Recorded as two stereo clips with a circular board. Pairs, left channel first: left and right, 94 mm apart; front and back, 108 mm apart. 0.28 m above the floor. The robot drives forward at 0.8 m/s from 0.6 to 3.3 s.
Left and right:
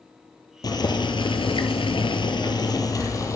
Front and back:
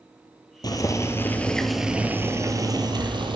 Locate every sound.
0.6 s boiling: 50° left, 1.3 m; by 3.4 s 140° left, 1.6 m